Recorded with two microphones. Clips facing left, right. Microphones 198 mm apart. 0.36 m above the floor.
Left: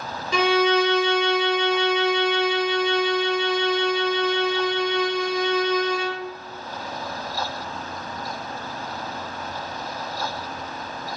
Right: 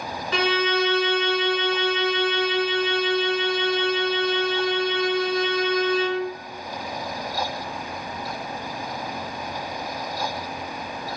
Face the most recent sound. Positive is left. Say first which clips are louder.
# left 4 dB
turn(degrees=15)  # may be behind; listen again after turning